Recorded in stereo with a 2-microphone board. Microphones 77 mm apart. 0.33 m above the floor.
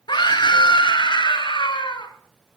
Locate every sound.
0.1 s a scream: 70° left (ahead or behind), 3.5 m